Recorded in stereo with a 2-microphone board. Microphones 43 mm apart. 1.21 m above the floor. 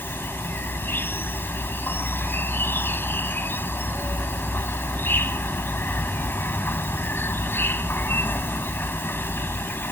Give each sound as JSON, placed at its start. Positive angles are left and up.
{"t": 0.0, "sound": "an insect", "side_deg": 50}